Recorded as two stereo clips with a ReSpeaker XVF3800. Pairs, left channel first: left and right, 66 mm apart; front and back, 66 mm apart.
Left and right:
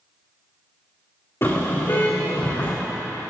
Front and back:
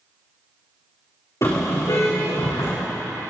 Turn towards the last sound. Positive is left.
turn(degrees=20)